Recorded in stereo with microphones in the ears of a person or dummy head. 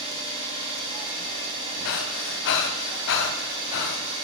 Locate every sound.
0.0 s an engine running: 30° right (ahead or behind), 1.3 m
1.9 s breathing: 60° left (ahead or behind), 0.6 m